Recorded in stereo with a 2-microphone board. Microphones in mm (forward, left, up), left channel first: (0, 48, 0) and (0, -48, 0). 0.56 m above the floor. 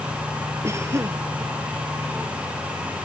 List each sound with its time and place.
0.6 s a cough: 30° right (ahead or behind)